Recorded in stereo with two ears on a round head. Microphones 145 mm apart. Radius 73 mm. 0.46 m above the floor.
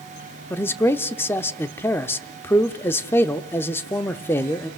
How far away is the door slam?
No door slam in this recording.